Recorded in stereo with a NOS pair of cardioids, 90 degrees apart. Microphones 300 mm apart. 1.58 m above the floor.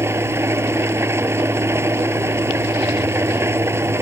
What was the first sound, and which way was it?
An engine running, 10° right.